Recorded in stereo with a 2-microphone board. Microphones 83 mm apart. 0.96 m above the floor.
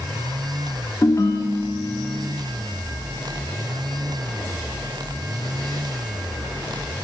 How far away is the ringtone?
About 1.5 m.